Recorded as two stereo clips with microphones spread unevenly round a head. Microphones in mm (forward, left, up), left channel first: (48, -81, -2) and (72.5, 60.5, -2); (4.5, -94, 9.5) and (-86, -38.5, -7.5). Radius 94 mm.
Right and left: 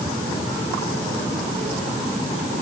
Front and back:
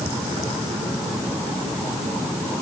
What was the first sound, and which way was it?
Only background noise.